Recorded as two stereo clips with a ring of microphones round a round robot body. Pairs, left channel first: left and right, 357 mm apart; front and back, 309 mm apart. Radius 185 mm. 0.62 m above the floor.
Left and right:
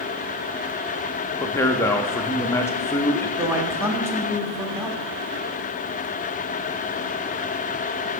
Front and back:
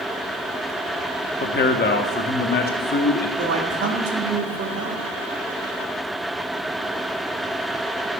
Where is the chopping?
I don't hear chopping.